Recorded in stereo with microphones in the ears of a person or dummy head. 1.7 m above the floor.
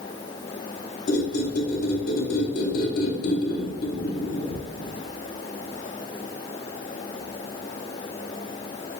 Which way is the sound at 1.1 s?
55° left (ahead or behind).